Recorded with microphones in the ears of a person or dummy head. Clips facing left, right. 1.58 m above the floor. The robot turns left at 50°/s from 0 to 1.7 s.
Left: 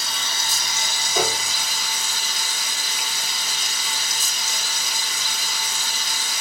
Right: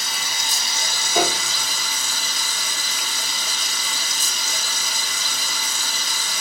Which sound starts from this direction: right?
A piano, at 1.1 s.